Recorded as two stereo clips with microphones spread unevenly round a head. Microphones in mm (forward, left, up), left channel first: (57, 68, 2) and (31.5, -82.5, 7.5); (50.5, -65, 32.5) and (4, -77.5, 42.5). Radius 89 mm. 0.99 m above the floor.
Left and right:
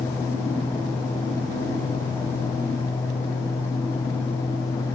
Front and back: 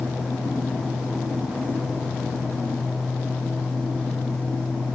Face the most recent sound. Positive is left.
No sound to turn to.